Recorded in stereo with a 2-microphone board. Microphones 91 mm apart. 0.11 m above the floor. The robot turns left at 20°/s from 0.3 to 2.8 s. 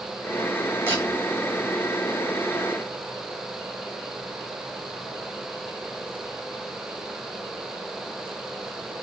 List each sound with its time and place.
0.9 s a camera shutter: 25° right (ahead or behind), 6 m; by 1.0 s 30° right (ahead or behind), 6 m